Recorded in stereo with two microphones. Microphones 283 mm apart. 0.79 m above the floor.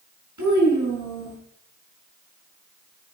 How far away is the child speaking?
About 5.5 m.